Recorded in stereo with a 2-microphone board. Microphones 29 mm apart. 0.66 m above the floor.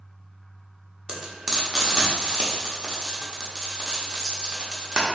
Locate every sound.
1.1 s frying: 20° right (ahead or behind), 1.0 m